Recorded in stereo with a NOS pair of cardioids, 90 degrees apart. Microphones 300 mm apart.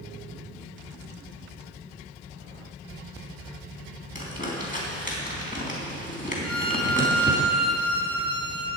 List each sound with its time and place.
4.2 s crumpling: 30° left, 4 m
6.4 s a violin: 15° left, 2.5 m